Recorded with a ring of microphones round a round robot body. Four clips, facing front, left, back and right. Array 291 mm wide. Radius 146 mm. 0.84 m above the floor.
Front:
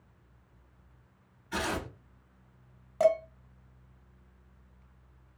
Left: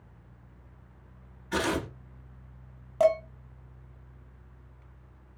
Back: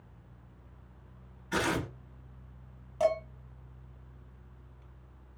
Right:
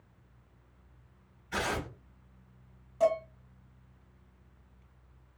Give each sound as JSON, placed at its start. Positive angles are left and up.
{"t": 1.5, "sound": "tearing paper", "azimuth_deg": 115, "distance_m": 1.3}
{"t": 3.0, "sound": "dishes clattering", "azimuth_deg": 70, "distance_m": 0.9}